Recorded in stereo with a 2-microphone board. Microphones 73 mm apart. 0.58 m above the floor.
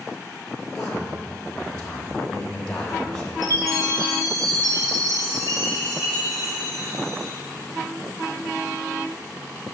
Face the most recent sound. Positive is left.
turn(degrees=-60)  # may be behind; listen again after turning